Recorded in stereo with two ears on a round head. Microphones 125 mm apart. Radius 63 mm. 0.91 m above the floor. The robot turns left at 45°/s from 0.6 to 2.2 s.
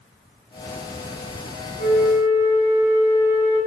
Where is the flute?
55° left (ahead or behind), 3 m; by 3.6 s 35° left (ahead or behind), 3 m.